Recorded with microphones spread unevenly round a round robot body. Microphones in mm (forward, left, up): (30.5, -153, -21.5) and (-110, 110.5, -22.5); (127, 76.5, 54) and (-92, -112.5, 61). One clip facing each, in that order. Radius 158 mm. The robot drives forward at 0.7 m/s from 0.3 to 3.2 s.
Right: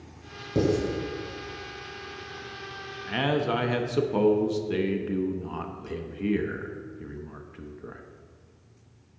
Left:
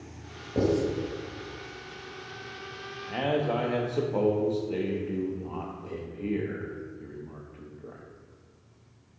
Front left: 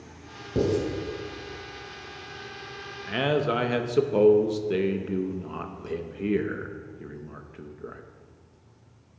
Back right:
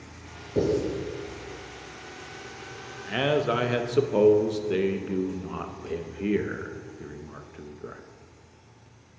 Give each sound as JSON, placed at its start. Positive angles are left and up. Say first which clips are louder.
{"t": 0.6, "sound": "writing", "louder": "right 1 dB, even", "azimuth_deg": -15, "distance_m": 2.5}
{"t": 3.1, "sound": "a man speaking", "louder": "right 1 dB, even", "azimuth_deg": -35, "distance_m": 0.5}